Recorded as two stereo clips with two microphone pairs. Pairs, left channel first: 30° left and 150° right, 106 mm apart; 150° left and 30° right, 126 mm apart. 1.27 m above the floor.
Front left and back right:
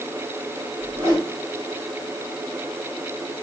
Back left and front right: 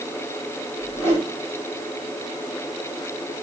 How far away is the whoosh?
About 3 m.